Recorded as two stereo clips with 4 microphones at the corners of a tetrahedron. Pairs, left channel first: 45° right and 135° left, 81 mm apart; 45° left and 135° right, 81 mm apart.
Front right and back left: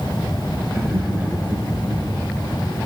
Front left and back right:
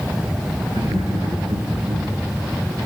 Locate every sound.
0.7 s laughter: 135° right, 9.5 m